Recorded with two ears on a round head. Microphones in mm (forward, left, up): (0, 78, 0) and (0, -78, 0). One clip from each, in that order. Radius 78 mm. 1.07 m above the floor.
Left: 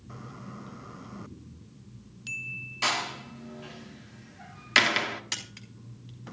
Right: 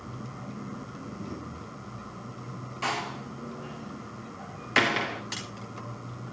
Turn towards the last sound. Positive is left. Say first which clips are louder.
# even
turn(degrees=55)  # may be behind; listen again after turning